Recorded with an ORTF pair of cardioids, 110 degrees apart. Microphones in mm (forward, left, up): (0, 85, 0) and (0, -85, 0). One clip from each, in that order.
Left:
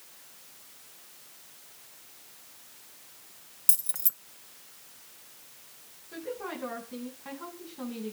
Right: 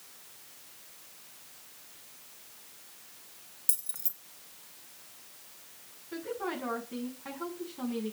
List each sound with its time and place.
3.7 s keys jangling: 25° left, 1.1 m
6.1 s a woman speaking: 20° right, 8.5 m